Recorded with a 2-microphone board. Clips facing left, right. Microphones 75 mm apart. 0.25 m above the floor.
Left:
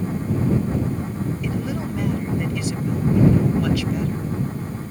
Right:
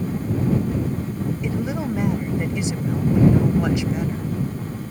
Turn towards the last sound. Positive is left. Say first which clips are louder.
# right 1 dB
turn(degrees=-20)  # may be behind; listen again after turning